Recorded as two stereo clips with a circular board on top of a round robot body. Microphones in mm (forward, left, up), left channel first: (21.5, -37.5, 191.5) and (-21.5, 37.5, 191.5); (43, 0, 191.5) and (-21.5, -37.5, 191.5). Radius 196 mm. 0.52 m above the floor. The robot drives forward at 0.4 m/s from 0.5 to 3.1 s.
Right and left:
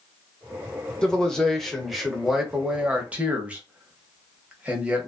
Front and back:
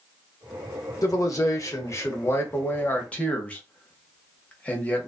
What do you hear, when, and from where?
1.0 s a man speaking: 20° left, 1.4 m; by 5.1 s 70° left, 1.0 m